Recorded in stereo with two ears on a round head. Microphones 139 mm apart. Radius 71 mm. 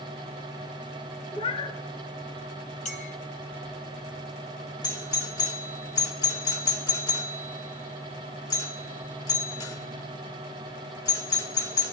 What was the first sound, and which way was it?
A cat meowing, 35° left (ahead or behind).